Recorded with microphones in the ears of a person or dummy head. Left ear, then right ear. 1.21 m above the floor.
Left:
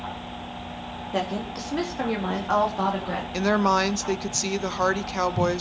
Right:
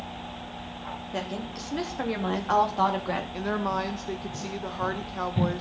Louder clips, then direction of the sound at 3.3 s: Left 11 dB; 70° left (ahead or behind).